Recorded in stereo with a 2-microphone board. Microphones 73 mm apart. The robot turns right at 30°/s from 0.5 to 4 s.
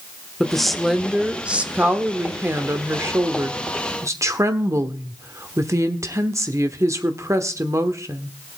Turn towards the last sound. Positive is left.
turn(degrees=-80)